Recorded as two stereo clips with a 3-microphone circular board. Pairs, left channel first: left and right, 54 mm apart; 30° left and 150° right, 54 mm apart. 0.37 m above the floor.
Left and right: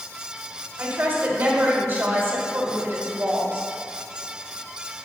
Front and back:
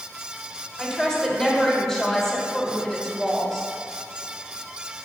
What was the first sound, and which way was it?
A woman speaking, 60° right.